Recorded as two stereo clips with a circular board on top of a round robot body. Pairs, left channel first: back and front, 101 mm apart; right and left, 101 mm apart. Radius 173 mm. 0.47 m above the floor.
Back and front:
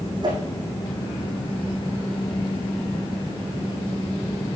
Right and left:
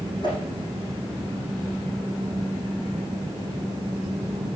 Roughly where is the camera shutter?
I don't hear a camera shutter.